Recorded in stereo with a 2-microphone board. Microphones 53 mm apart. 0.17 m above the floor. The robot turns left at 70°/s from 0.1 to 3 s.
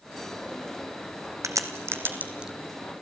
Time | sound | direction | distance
1.4 | a crack | 85° right | 1.8 m